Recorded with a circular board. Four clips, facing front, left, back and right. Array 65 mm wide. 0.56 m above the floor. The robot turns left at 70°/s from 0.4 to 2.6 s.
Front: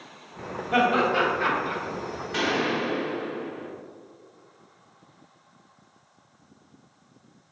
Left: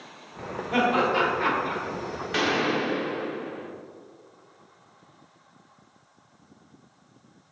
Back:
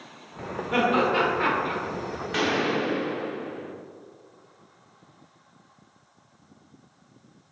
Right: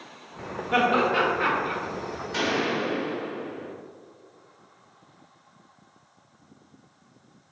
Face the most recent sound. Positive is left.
turn(degrees=90)